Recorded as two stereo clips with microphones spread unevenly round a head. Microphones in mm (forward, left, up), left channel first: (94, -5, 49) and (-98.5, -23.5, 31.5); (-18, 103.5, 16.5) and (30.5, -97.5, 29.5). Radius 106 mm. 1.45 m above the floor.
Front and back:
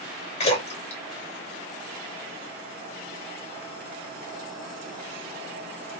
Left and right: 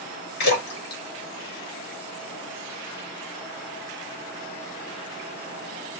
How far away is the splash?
About 2 m.